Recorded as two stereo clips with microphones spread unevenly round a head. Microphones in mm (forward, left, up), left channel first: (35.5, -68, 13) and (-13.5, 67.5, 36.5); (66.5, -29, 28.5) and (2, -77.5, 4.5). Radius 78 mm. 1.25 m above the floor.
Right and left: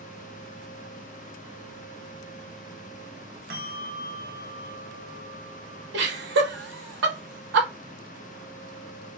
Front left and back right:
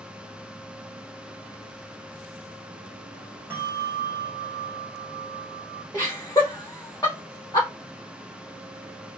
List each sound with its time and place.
3.5 s a bell: 135° left, 0.8 m
5.9 s laughter: 105° left, 1.2 m